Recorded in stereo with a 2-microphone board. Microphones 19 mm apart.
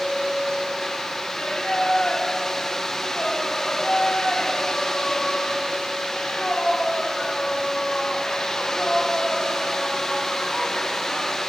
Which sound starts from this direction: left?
Singing, at 1.3 s.